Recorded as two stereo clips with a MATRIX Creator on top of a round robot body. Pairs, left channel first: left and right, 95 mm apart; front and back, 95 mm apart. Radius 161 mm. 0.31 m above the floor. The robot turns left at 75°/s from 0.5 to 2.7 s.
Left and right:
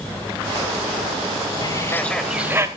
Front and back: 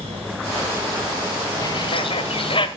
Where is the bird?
45° left, 1.6 m; by 2.7 s 30° right, 1.6 m.